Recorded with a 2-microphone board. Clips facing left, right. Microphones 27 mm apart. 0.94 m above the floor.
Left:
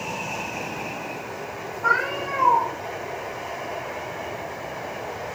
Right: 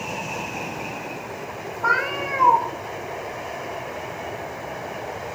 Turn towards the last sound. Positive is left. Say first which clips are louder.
# right 1 dB
turn(degrees=-30)  # may be behind; listen again after turning